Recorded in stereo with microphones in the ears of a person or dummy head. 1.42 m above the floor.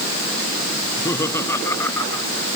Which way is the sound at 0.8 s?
15° left (ahead or behind).